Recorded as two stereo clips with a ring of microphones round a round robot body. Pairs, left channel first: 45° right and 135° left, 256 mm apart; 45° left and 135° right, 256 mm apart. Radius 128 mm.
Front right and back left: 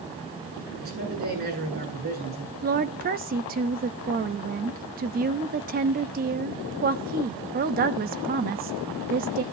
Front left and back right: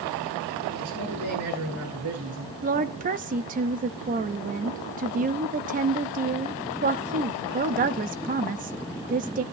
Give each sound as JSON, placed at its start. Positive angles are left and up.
{"t": 0.8, "sound": "a man speaking", "azimuth_deg": -170, "distance_m": 9.5}
{"t": 2.6, "sound": "a woman speaking", "azimuth_deg": 175, "distance_m": 0.9}